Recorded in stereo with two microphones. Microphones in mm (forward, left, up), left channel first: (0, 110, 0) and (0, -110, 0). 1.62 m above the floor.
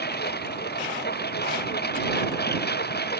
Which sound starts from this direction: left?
A lawn mower, at 0.0 s.